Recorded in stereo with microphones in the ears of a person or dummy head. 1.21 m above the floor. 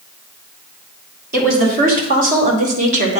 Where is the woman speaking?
45° right (ahead or behind), 3 m; by 3.2 s 35° right (ahead or behind), 1.8 m.